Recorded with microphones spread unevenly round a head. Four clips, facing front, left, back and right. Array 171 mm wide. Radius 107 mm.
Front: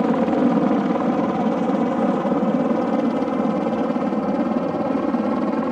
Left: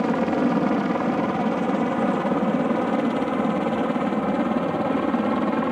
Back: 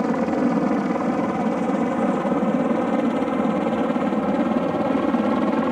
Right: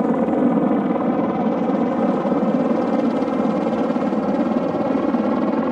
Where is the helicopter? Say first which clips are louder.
Right 4 dB, front 3 dB; 80° right; by 5.7 s 95° right.